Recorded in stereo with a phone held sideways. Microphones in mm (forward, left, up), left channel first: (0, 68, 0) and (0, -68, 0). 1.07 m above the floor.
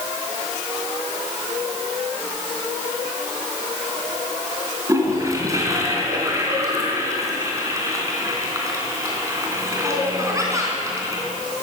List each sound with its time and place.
4.9 s a toilet flushing: 25° right (ahead or behind), 3.5 m